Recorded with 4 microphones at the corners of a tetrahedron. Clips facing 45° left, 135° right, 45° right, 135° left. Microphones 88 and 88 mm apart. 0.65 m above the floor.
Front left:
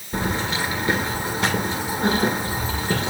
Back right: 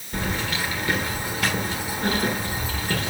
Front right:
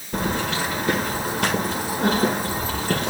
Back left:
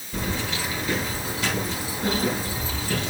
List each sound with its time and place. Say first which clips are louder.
0.1 s keys jangling: front left 3 dB, front right 5 dB; 20° right, 1.6 m